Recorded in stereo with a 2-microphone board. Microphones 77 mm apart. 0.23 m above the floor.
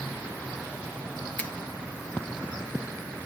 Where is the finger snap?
15° left (ahead or behind), 2 m.